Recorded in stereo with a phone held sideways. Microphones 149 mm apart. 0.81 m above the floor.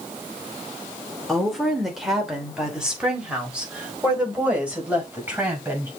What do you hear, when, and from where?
1.3 s a woman speaking: centre (ahead or behind), 3 m; by 5.9 s 10° right (ahead or behind), 5.5 m